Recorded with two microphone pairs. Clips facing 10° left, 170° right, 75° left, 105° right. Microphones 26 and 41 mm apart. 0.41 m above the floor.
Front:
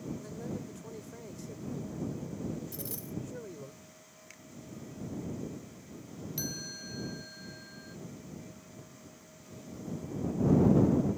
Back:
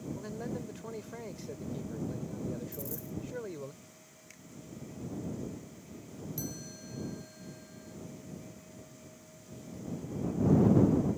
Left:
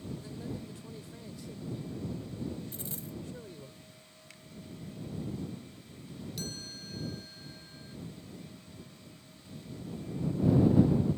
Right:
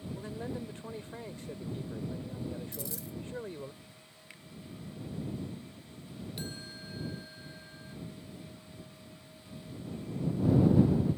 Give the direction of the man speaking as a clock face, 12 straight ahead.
4 o'clock.